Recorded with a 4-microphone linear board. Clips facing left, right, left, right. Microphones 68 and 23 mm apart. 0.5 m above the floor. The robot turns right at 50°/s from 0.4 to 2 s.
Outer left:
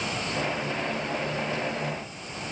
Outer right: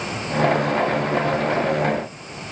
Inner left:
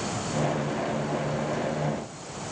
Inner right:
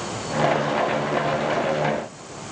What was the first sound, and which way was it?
Only background noise.